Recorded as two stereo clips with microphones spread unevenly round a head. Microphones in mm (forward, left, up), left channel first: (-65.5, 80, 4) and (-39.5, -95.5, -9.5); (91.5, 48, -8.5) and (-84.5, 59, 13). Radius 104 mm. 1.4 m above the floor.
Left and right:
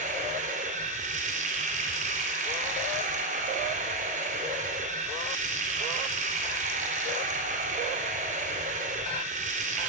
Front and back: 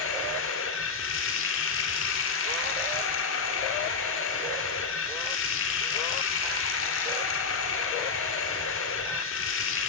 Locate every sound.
0.0 s running water: 25° right, 4 m